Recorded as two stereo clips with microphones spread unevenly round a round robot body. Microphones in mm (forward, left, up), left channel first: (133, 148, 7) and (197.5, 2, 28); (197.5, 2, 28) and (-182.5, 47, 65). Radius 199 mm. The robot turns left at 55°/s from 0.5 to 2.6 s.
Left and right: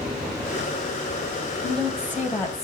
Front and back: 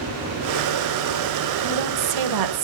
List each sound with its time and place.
1.6 s a woman speaking: 125° right, 1.6 m; by 2.6 s straight behind, 1.6 m